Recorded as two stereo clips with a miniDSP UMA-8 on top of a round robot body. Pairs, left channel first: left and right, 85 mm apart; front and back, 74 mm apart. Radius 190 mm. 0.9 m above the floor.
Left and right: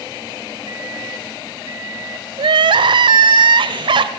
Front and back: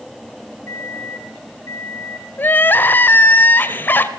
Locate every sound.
0.7 s a microwave: 50° right, 6.5 m
2.4 s crying: 65° right, 1.1 m